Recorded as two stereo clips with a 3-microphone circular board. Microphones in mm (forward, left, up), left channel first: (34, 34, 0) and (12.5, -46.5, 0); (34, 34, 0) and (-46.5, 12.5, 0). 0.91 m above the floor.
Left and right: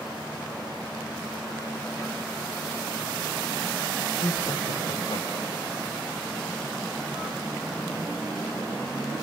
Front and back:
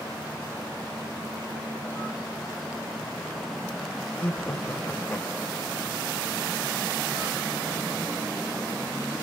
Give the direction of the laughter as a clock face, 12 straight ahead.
9 o'clock.